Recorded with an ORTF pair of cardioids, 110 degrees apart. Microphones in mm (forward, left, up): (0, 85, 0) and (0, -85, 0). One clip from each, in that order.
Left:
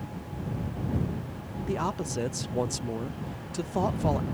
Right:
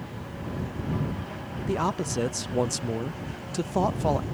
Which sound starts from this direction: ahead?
A man speaking, at 1.7 s.